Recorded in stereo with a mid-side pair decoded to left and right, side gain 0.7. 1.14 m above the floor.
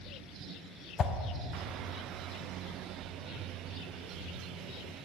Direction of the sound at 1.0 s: 30° left.